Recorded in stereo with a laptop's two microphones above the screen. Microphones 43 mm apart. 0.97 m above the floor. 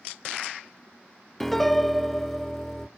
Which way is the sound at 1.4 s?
5° left (ahead or behind).